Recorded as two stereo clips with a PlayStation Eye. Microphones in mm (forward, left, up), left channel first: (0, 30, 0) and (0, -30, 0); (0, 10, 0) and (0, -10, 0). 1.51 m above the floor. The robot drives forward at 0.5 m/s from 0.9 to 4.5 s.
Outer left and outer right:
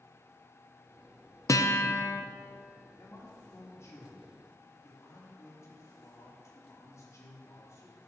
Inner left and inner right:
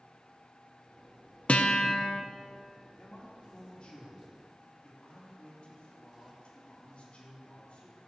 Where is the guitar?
60° left (ahead or behind), 0.6 m; by 2.2 s 45° left (ahead or behind), 0.7 m.